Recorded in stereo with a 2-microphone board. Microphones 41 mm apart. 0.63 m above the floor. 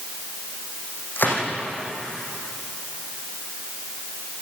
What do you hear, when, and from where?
1.2 s a gunshot: 50° left (ahead or behind), 6.5 m